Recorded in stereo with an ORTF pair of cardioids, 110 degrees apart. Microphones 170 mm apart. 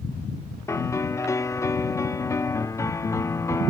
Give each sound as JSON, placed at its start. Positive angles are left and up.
{"t": 0.7, "sound": "a piano", "azimuth_deg": 15}